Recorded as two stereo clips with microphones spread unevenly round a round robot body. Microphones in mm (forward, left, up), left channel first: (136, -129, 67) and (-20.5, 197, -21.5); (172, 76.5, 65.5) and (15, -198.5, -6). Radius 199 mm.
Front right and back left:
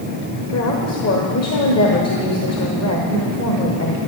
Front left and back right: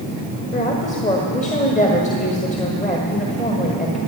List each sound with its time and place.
0.5 s a woman speaking: 15° right, 1.7 m